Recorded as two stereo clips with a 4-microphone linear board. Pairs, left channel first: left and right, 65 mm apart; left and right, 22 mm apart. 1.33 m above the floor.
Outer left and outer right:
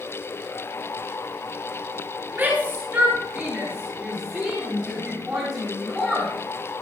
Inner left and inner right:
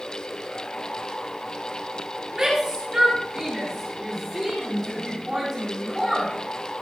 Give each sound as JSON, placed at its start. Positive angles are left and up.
{"t": 2.3, "sound": "a shout", "side_deg": -25, "distance_m": 7.5}